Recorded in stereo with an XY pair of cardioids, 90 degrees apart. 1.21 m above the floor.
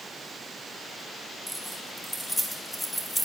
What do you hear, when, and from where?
1.5 s keys jangling: 5° left, 4 m; by 3.3 s 10° left, 2.5 m